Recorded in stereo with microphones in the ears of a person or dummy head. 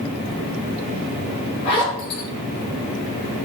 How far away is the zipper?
About 5 m.